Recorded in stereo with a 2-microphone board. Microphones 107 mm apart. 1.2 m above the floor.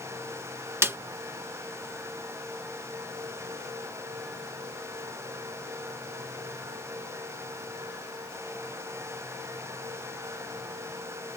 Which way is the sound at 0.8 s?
25° right (ahead or behind).